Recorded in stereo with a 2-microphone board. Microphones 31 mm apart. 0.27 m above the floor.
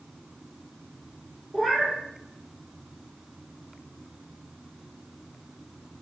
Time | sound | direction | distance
1.5 | a cat meowing | 15° left (ahead or behind) | 1.9 m